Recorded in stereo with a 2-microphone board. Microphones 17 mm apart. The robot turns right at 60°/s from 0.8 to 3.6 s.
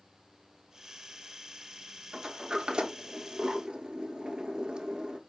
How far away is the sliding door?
About 0.6 m.